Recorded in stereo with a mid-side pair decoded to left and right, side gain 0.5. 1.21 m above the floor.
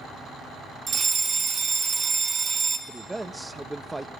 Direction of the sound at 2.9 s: 10° right.